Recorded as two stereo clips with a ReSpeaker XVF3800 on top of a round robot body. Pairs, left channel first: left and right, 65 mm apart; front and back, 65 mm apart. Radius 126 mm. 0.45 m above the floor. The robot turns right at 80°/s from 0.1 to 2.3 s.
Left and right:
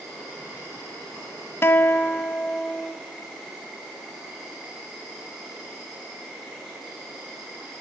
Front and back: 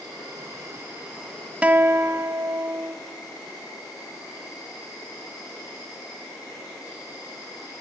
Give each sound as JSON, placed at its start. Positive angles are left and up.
{"t": 0.0, "sound": "an insect", "azimuth_deg": 175, "distance_m": 6.0}
{"t": 1.6, "sound": "a guitar", "azimuth_deg": 120, "distance_m": 0.6}